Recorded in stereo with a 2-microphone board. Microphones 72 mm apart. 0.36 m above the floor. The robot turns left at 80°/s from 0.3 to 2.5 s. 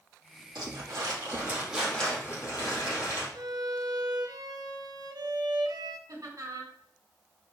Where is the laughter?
50° right (ahead or behind), 3 m.